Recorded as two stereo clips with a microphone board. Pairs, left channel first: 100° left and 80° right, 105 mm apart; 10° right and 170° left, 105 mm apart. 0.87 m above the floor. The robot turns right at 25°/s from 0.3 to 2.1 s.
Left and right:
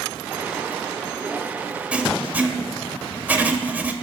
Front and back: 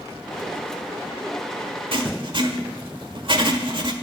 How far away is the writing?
About 1.4 m.